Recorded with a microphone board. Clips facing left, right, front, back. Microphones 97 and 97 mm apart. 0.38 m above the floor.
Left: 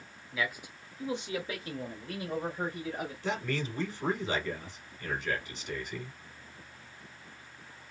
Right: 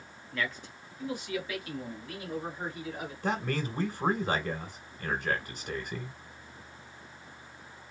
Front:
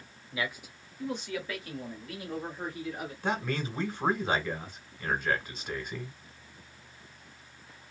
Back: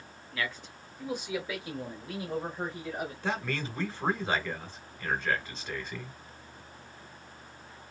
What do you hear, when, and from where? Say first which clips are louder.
0.3 s a man speaking: even, front 1 dB; 15° left, 0.8 m; by 3.1 s 130° left, 1.7 m
3.2 s a man speaking: right 3 dB, front 4 dB; 80° right, 1.5 m